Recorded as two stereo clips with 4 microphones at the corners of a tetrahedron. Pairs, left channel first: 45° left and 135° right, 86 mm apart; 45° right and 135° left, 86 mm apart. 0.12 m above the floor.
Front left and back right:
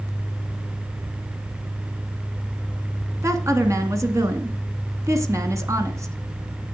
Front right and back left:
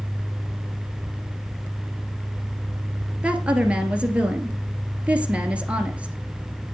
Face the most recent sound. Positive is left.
turn(degrees=-160)